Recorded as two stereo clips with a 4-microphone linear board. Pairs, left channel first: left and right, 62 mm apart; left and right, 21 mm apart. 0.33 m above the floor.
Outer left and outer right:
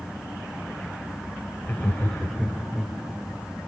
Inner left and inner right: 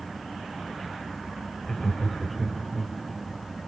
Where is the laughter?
30° left (ahead or behind), 1.7 m; by 3.0 s 10° right (ahead or behind), 1.5 m.